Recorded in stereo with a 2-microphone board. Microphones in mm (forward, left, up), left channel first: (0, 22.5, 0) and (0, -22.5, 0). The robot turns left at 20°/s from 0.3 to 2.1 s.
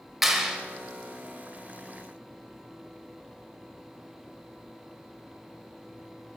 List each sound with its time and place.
0.2 s a clap: 5° right (ahead or behind), 0.9 m; by 0.6 s 10° right (ahead or behind), 0.9 m